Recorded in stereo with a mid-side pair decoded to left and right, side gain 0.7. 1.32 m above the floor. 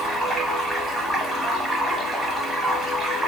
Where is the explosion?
I don't hear an explosion.